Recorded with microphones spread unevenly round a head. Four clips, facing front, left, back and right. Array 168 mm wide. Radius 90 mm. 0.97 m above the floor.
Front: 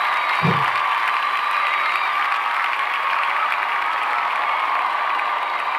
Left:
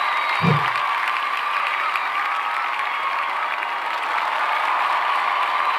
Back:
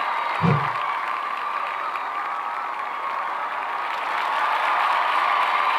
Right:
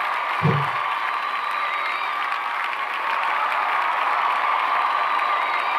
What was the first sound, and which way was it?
A whoosh, 120° left.